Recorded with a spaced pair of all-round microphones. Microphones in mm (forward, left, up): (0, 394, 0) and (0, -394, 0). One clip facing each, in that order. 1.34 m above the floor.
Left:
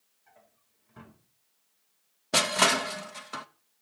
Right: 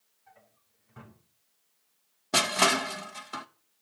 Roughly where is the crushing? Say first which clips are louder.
Even; centre.